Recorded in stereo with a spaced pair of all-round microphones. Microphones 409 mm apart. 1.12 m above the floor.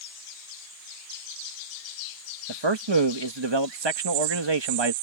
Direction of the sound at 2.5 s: 85° right.